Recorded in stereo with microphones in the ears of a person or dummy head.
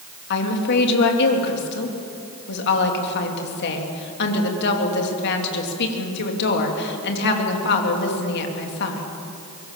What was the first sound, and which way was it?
A woman speaking, 60° left (ahead or behind).